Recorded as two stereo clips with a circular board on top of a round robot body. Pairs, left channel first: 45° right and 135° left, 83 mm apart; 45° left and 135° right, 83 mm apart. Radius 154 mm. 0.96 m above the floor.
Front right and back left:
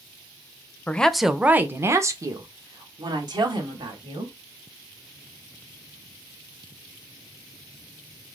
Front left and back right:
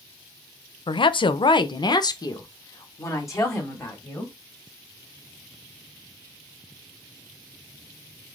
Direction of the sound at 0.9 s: 25° left.